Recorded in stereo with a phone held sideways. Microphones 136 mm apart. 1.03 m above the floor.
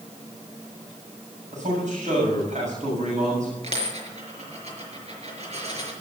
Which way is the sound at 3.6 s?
50° right (ahead or behind).